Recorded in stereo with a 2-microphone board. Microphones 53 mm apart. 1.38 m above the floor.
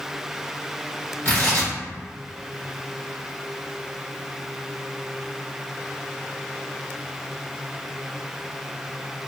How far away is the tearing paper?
About 1.2 m.